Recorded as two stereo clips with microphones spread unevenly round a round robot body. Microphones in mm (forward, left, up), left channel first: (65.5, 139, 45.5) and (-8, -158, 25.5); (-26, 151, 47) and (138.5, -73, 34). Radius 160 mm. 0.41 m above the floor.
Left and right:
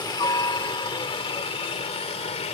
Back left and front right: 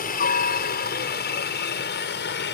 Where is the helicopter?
145° left; by 2.5 s 135° left.